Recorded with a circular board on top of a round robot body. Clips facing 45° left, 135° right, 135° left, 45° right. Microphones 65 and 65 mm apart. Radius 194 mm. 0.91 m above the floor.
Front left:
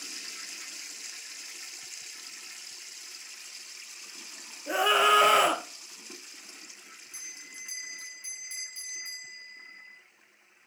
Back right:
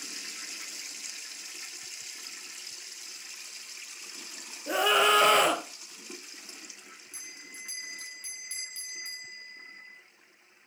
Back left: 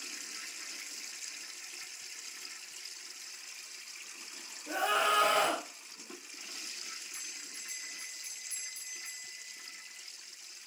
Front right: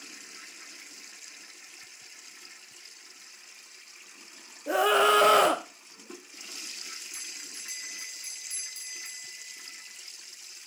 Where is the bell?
25° right, 0.6 m.